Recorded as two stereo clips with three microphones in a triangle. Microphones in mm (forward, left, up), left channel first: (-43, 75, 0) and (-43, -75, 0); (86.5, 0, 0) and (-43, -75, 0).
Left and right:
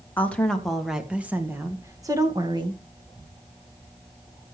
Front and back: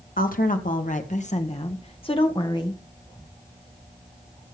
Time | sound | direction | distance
0.2 | a woman speaking | 10° left | 1.7 m